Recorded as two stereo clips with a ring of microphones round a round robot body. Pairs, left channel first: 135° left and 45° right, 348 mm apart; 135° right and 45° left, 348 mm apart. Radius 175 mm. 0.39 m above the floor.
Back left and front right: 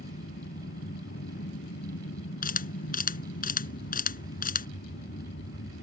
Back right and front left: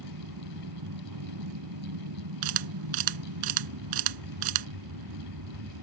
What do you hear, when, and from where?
0.0 s an aircraft: 75° left
2.4 s a camera shutter: 70° left